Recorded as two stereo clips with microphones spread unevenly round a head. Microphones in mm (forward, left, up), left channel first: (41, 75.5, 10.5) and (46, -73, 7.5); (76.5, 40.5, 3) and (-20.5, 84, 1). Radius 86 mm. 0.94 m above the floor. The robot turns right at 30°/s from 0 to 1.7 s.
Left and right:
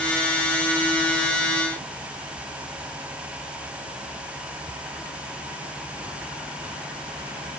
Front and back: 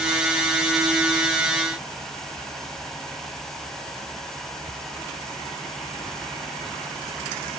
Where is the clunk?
No clunk in this recording.